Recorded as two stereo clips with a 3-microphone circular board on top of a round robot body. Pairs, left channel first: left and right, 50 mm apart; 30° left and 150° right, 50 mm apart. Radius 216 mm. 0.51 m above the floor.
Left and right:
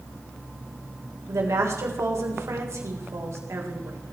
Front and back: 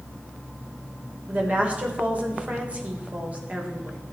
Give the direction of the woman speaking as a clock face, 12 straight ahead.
3 o'clock.